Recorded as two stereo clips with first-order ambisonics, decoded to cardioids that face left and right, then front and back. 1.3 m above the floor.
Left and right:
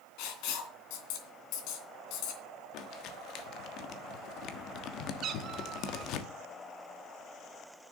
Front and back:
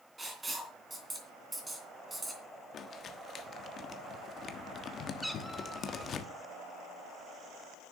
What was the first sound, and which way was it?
Writing, 100° left.